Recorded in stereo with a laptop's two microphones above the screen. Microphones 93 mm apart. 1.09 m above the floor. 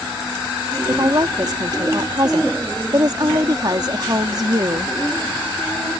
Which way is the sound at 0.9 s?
45° right (ahead or behind).